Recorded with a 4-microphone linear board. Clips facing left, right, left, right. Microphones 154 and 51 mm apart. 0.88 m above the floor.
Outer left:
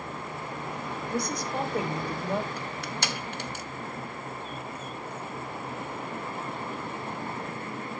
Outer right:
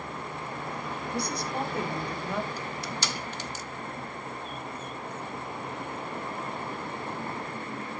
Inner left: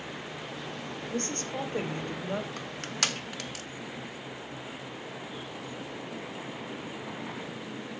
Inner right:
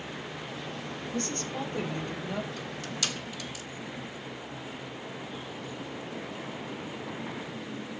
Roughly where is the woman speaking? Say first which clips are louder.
Outer left 2 dB, inner left 1 dB; left.